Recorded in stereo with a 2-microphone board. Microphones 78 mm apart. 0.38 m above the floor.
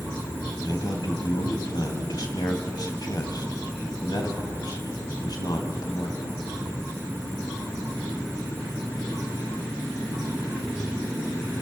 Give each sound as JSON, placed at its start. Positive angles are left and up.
{"t": 0.6, "sound": "a man speaking", "side_deg": 60, "distance_m": 2.5}